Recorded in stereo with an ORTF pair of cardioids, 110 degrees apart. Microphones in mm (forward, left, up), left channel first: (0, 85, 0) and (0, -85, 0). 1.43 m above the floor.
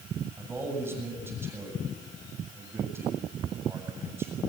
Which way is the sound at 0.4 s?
15° right.